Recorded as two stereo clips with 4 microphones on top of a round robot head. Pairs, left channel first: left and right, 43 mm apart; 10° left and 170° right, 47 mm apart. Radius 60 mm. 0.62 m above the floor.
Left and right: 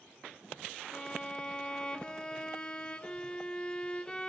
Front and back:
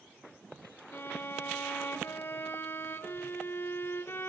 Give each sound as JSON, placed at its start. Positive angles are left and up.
{"t": 0.9, "sound": "a violin", "azimuth_deg": 30, "distance_m": 0.7}